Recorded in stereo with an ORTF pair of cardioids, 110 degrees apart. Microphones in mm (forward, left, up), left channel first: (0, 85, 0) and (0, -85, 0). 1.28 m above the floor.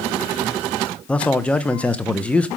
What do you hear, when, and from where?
1.1 s a man speaking: 5° left, 0.8 m